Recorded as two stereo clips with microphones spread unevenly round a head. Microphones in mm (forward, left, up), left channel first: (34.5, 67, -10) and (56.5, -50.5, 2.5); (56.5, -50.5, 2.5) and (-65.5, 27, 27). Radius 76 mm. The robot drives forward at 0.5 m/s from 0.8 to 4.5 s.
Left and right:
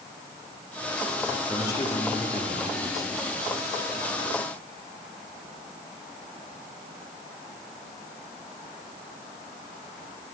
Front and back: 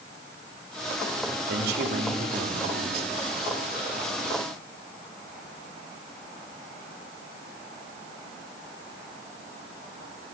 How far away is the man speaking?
About 3 m.